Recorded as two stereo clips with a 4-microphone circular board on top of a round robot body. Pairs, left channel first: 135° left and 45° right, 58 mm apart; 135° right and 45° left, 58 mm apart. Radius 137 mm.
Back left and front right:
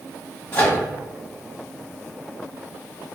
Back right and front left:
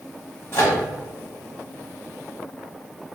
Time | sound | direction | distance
0.5 | a microwave | 175° right | 1.3 m